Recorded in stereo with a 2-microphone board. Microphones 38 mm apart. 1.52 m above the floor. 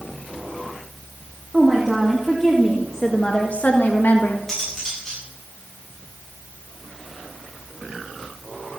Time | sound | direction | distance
1.5 | a woman speaking | 15° right (ahead or behind) | 2.5 m
4.5 | cutlery clinking | 10° left (ahead or behind) | 8.5 m